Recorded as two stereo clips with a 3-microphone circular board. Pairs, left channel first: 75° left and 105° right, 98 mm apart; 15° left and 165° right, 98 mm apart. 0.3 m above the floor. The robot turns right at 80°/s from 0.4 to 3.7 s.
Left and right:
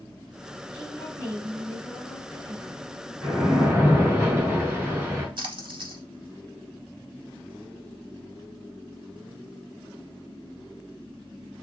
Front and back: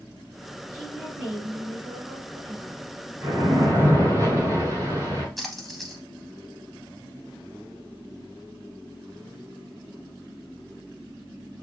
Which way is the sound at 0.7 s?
90° left.